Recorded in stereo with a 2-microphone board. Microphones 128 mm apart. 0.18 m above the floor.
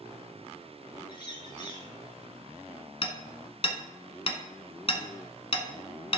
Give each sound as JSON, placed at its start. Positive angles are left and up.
{"t": 1.1, "sound": "a bird", "side_deg": 35, "distance_m": 3.0}
{"t": 3.0, "sound": "hammering", "side_deg": 50, "distance_m": 1.1}